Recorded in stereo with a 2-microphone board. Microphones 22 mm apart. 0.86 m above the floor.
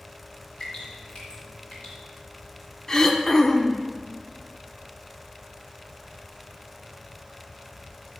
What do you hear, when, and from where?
0.6 s dripping: 50° left (ahead or behind), 3.5 m
2.9 s throat clearing: 20° left (ahead or behind), 0.7 m